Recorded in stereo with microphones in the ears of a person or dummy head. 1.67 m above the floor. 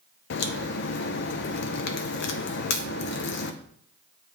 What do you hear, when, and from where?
0.3 s a crack: 60° left (ahead or behind), 0.5 m